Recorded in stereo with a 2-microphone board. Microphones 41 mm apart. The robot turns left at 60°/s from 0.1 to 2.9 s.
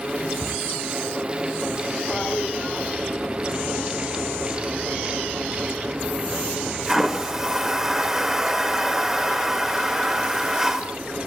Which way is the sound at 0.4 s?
60° right (ahead or behind).